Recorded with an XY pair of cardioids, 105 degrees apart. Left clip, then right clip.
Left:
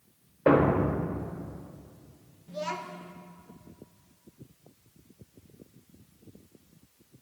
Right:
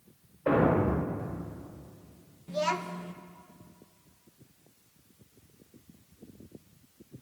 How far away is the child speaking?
About 1.0 m.